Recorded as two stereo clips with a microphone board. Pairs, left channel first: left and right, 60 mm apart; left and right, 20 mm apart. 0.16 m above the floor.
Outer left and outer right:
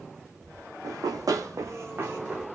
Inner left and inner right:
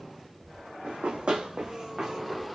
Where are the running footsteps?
80° right, 0.7 m; by 2.4 s 25° right (ahead or behind), 1.0 m.